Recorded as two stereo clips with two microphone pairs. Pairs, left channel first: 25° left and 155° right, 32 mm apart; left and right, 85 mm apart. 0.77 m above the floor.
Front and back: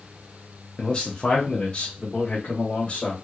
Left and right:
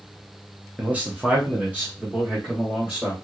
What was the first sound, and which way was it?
A man speaking, 30° right.